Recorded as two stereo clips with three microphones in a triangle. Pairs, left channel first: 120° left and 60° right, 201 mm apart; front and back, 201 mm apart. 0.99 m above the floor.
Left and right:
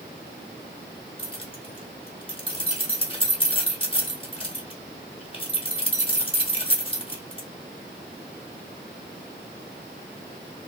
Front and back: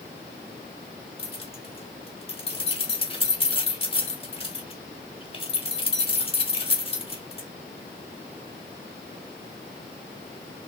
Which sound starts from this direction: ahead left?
Keys jangling, at 1.2 s.